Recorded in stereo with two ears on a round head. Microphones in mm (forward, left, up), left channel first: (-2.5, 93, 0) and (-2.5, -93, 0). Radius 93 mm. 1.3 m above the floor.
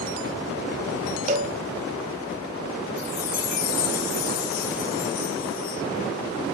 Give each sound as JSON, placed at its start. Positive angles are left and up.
{"t": 1.3, "sound": "a cowbell", "side_deg": -35, "distance_m": 1.2}
{"t": 3.0, "sound": "a chime", "side_deg": 45, "distance_m": 1.0}